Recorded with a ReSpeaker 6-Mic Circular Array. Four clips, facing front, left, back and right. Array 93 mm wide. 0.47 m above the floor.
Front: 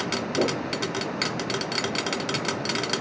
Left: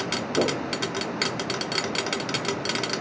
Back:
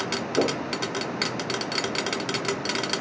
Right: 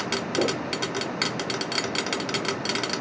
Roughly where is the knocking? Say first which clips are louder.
Left 1 dB, back 1 dB; behind left.